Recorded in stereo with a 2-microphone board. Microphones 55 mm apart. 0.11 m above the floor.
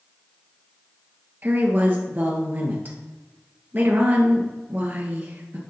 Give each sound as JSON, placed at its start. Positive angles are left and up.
{"t": 1.4, "sound": "a woman speaking", "side_deg": -35, "distance_m": 1.7}